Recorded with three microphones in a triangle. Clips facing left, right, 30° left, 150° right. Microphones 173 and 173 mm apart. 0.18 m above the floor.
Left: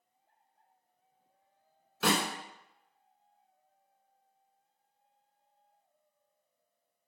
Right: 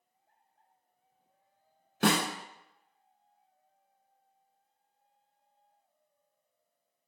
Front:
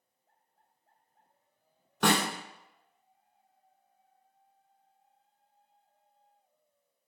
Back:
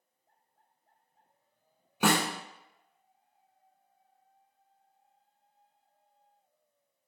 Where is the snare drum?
70° right, 0.5 m.